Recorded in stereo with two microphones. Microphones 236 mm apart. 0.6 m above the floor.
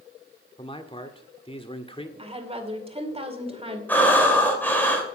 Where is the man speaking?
20° left (ahead or behind), 1.4 m.